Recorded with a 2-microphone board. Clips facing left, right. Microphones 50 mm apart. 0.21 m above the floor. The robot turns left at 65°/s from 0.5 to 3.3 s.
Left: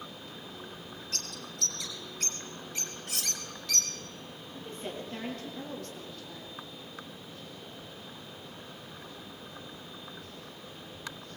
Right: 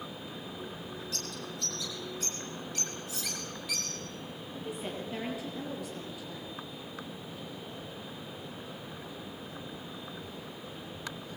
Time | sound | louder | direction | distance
1.1 | a bird | right 2 dB | 45° left (ahead or behind) | 4.5 m
3.1 | cutlery clinking | left 1 dB | 75° left (ahead or behind) | 2.5 m
4.5 | a woman speaking | right 1 dB | 10° right (ahead or behind) | 6.5 m